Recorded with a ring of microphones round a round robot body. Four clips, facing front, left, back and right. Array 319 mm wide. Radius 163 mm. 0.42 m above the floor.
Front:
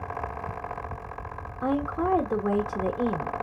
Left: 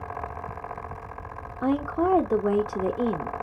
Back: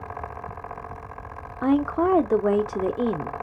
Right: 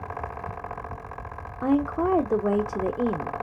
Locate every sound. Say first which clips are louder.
1.6 s a woman speaking: right 1 dB, back 5 dB; 170° right, 0.9 m